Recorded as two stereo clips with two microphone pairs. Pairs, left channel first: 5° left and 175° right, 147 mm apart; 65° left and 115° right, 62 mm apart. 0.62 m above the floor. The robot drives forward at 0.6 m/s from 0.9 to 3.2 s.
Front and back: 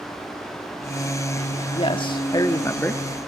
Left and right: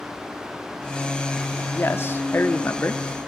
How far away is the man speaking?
About 1.6 m.